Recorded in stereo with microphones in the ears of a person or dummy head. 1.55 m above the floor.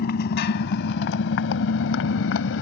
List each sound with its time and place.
0.0 s a motorcycle: 50° left (ahead or behind); by 2.6 s 70° left (ahead or behind)